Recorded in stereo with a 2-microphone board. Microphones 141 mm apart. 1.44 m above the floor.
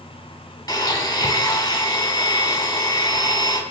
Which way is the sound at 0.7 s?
25° left (ahead or behind).